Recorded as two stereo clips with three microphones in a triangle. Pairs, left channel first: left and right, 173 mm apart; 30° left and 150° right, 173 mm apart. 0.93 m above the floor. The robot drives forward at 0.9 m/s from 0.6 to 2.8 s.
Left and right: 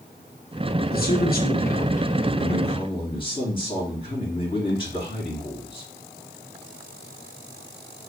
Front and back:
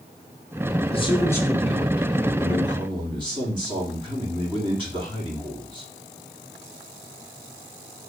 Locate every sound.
0.9 s a man speaking: 80° left, 1.0 m; by 5.9 s 150° left, 1.8 m